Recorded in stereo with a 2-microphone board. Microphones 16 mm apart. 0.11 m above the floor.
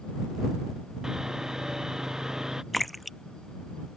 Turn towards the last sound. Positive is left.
turn(degrees=10)  # may be behind; listen again after turning